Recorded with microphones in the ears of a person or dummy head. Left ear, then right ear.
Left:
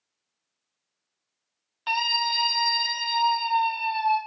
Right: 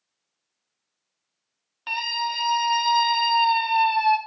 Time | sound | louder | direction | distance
1.9 | a scream | left 2 dB | 25° left (ahead or behind) | 2.5 m